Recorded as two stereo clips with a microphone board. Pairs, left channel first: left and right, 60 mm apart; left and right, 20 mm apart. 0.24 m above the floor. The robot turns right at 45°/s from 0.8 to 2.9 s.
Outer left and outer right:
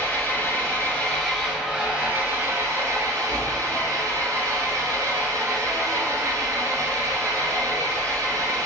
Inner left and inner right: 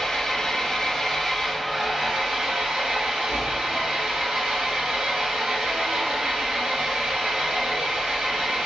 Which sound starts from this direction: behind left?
An engine running, at 0.0 s.